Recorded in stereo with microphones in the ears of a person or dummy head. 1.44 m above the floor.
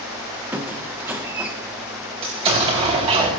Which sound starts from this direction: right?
An explosion, at 2.2 s.